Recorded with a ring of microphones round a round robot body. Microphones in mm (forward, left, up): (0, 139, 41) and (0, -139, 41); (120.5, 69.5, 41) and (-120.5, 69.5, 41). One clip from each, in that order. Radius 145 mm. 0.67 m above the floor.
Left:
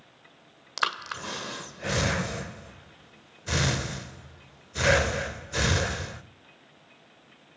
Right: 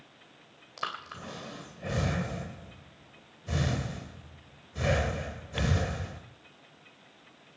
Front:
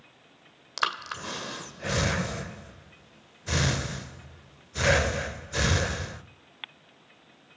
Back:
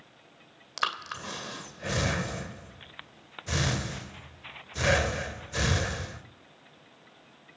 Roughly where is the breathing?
Left.